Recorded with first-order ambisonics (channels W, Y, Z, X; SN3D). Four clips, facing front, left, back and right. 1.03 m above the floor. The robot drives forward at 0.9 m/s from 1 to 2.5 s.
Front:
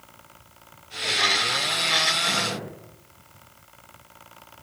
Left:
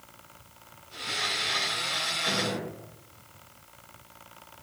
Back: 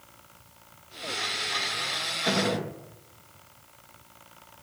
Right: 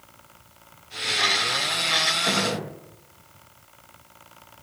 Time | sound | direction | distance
2.3 | a gunshot | 145° right | 1.6 m